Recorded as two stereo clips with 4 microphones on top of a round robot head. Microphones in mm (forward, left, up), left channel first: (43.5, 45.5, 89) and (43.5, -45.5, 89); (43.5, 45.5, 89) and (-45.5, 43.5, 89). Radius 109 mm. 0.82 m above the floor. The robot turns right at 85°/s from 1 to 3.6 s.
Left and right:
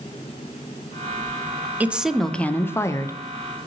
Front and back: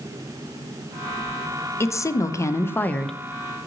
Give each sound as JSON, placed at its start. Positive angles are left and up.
{"t": 1.8, "sound": "a woman speaking", "azimuth_deg": -30, "distance_m": 0.6}